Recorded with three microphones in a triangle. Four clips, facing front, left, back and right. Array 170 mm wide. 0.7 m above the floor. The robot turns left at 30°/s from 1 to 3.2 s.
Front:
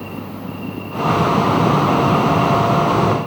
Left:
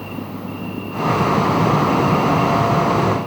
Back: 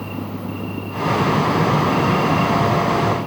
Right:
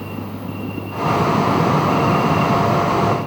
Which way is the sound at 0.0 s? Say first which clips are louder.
Even, back 1 dB; 35° right.